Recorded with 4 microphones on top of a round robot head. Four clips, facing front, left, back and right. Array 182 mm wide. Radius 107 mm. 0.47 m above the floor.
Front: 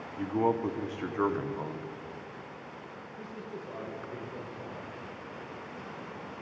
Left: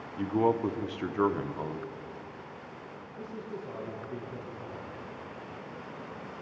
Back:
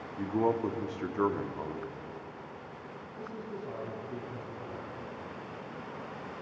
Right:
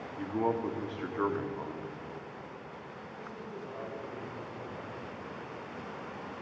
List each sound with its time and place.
0.2 s a man speaking: 85° left, 0.7 m
3.2 s a man speaking: 150° left, 4 m